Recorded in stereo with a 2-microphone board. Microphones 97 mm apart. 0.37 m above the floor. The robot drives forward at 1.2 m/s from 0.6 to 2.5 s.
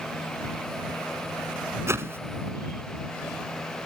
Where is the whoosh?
30° right (ahead or behind); by 2.2 s 25° right (ahead or behind).